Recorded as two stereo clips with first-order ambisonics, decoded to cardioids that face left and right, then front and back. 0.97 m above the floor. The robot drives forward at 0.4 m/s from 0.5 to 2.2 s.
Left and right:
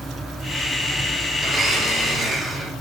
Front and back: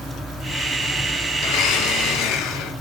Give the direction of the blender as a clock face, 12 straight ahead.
12 o'clock.